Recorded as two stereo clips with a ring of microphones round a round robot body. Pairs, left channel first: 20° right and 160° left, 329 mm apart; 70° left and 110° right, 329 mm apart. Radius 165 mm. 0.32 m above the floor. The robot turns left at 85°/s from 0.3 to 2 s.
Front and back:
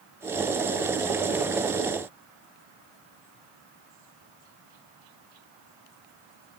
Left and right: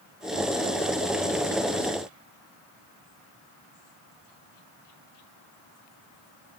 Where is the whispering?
I don't hear whispering.